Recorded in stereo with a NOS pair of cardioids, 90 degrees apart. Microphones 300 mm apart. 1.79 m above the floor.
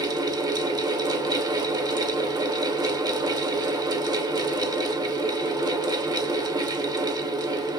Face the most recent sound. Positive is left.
turn(degrees=-15)